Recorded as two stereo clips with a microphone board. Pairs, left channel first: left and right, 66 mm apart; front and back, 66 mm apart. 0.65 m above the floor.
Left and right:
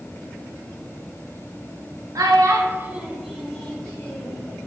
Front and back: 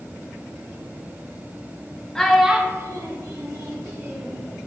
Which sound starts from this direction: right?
A child speaking, at 2.1 s.